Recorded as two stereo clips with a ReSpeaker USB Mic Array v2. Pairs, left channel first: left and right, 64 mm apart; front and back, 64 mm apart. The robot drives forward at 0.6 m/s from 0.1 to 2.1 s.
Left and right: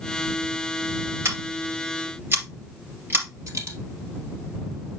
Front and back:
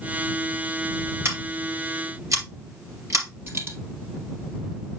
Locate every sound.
1.2 s scissors: 135° right, 2.5 m; by 3.2 s 145° right, 3 m
3.5 s a dropped coin: 130° right, 1.6 m